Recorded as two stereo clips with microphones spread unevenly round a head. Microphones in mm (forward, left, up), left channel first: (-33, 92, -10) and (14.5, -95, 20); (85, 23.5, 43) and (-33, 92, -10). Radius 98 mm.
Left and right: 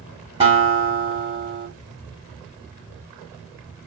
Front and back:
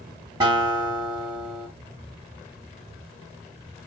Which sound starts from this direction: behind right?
A guitar, at 0.4 s.